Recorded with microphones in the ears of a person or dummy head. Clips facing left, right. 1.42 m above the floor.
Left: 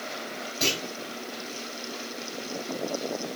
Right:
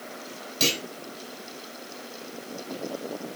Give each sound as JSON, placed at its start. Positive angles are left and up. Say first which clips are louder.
{"t": 0.6, "sound": "a clunk", "louder": "right 2 dB", "side_deg": -40, "distance_m": 2.5}